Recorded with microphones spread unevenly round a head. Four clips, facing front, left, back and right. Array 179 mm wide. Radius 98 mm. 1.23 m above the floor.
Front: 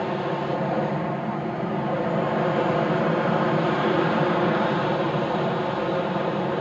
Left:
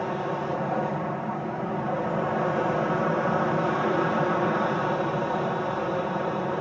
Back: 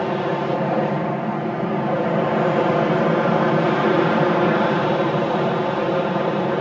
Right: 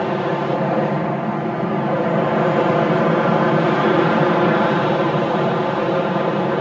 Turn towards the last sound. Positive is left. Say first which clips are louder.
# right 8 dB, back 4 dB
turn(degrees=-120)